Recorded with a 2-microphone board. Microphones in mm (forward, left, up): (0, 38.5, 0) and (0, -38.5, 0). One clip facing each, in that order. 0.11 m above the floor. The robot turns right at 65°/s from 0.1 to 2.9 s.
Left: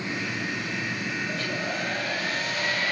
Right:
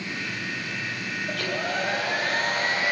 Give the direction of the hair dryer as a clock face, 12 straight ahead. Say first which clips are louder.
Right 2 dB; 4 o'clock.